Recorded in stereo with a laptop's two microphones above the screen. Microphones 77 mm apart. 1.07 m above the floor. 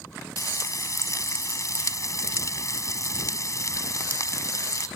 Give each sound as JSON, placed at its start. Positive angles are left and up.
{"t": 0.4, "sound": "frying", "side_deg": 45}